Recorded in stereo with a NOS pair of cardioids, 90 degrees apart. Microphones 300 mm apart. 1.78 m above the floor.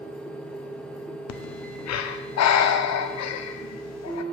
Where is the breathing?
60° left, 0.7 m.